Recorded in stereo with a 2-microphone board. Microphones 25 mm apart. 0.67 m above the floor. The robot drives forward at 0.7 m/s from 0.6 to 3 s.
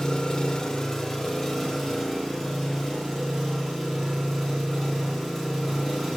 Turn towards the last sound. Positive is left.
turn(degrees=10)  # may be behind; listen again after turning